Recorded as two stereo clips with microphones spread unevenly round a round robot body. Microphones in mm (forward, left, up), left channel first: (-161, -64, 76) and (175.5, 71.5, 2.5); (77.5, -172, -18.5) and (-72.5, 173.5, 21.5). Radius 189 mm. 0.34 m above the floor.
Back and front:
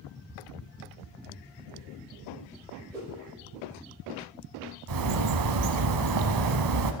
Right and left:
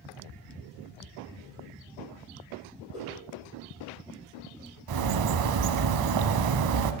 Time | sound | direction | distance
2.9 | a whoosh | 70° right | 5.5 m
4.9 | a bird | 65° left | 0.6 m